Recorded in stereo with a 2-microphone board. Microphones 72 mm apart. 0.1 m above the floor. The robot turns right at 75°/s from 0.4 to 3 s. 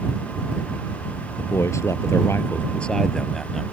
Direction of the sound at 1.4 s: 50° left.